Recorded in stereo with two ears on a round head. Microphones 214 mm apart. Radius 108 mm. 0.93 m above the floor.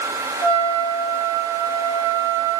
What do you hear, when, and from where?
0.4 s a trumpet: 65° right (ahead or behind), 1.7 m